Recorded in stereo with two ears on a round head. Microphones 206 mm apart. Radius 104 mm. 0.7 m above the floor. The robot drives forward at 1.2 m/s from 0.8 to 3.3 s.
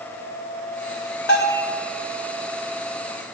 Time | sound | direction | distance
1.3 | a bell | 55° left (ahead or behind) | 3.5 m